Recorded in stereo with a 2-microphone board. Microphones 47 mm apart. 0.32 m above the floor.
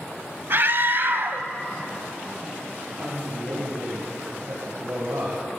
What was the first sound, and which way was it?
A scream, 50° right (ahead or behind).